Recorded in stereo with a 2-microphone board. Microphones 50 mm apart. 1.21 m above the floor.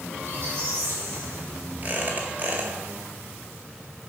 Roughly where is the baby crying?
I don't hear a baby crying.